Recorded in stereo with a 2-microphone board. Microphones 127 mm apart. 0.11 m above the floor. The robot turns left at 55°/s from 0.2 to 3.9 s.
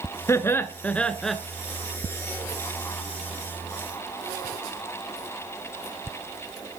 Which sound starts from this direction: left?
Laughter, at 0.3 s.